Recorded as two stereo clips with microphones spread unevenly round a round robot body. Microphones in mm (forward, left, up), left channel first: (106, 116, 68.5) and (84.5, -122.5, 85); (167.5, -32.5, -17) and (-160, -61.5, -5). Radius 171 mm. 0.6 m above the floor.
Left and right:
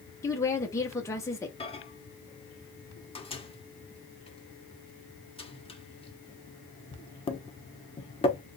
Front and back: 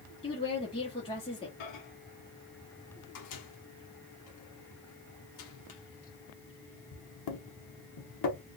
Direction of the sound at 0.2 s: 40° left.